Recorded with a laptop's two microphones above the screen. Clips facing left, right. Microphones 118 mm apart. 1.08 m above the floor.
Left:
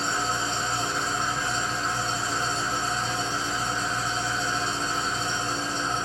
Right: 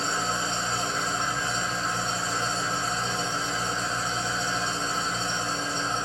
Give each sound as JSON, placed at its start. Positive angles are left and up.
{"t": 0.0, "sound": "an engine running", "side_deg": 5, "distance_m": 1.5}